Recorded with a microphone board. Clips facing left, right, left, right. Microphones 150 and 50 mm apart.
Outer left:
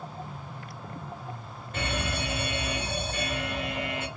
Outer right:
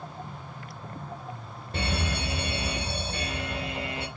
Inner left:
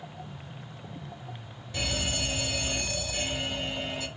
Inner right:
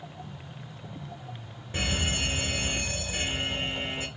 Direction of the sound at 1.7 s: 35° right (ahead or behind).